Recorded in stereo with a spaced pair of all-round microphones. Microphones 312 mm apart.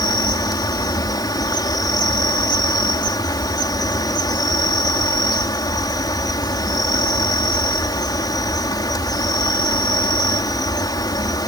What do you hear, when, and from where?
0.0 s an insect: 15° left (ahead or behind)